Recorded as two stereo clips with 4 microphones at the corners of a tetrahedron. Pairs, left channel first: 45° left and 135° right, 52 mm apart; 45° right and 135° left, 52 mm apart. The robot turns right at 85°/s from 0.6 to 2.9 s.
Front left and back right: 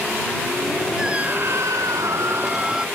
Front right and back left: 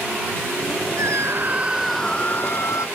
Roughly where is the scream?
Behind left.